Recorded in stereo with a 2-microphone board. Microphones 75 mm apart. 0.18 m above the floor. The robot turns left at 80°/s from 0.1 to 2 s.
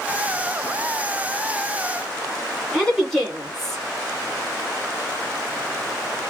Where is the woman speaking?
5° left (ahead or behind), 1.3 m.